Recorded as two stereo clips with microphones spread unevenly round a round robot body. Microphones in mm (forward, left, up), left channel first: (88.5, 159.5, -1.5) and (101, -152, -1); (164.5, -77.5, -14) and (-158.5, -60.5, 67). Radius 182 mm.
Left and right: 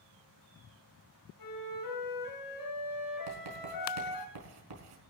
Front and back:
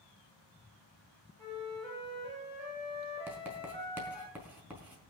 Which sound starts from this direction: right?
Writing, at 3.3 s.